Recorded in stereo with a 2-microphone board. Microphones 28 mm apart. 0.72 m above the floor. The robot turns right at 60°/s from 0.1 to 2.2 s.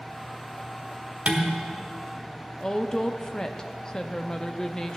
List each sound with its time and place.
1.3 s dishes clattering: 50° right (ahead or behind), 1.5 m; by 1.5 s 35° right (ahead or behind), 1.5 m
2.6 s a woman speaking: 25° left (ahead or behind), 0.9 m